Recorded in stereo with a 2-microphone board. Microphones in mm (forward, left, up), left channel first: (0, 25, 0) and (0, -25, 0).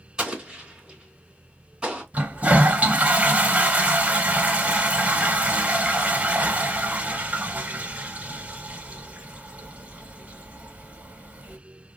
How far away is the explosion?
About 2 m.